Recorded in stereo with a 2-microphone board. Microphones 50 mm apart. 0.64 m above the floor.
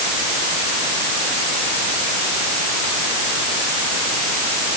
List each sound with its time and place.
Only background noise.